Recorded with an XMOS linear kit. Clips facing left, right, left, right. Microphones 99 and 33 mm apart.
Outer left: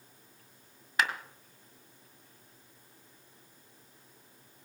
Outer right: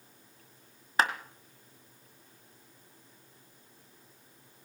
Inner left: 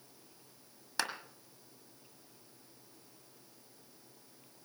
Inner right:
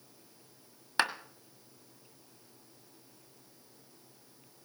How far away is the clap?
About 1.4 m.